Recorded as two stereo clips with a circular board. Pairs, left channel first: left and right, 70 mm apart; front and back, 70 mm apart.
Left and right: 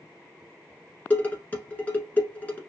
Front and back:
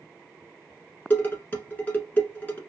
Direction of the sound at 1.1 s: 45° left.